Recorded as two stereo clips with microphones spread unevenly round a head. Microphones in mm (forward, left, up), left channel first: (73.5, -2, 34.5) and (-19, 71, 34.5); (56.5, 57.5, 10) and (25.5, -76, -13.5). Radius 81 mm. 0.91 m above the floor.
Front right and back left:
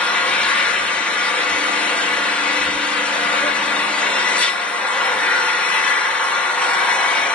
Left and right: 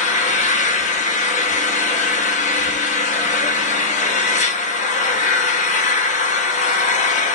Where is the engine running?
45° left, 1.0 m.